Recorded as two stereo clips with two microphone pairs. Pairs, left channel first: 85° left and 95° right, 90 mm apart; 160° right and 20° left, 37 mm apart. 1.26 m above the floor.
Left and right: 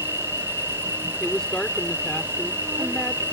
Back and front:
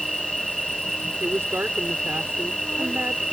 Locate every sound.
0.0 s an insect: 65° right
1.2 s a woman speaking: 5° left